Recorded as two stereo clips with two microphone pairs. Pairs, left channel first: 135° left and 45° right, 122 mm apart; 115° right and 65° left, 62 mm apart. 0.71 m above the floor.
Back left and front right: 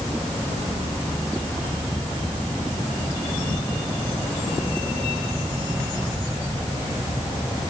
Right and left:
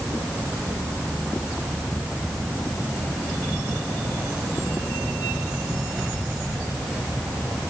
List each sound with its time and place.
Only background noise.